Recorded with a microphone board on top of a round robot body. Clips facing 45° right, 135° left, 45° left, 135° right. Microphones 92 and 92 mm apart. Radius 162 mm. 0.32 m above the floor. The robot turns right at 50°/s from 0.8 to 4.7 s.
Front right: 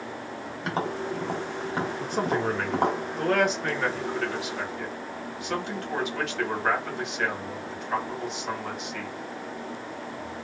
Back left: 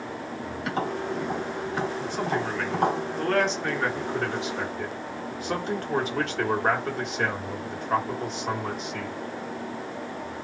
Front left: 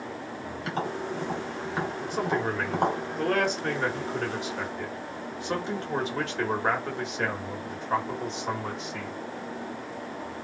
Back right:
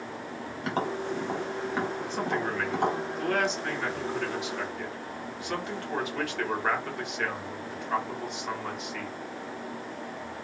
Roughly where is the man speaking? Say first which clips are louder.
Front right 1 dB, front left 2 dB; ahead right.